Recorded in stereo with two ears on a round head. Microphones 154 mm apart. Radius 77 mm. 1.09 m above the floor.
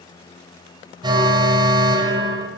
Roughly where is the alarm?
Right.